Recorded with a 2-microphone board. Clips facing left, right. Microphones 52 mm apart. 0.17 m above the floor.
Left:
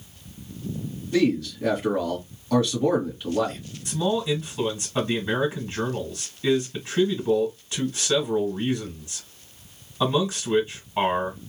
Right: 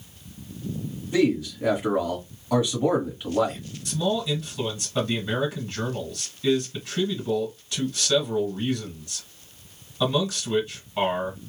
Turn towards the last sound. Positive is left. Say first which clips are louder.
# left 1 dB
turn(degrees=15)  # may be behind; listen again after turning